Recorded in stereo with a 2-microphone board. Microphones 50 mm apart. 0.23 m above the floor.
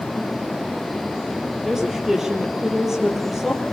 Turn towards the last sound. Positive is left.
turn(degrees=-10)  # may be behind; listen again after turning